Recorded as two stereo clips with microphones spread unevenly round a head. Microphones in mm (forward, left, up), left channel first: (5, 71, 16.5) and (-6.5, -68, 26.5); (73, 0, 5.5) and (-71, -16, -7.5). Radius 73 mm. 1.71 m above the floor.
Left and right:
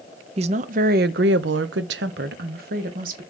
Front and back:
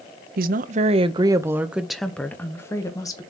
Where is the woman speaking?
145° right, 0.9 m; by 3.2 s 60° right, 1.5 m.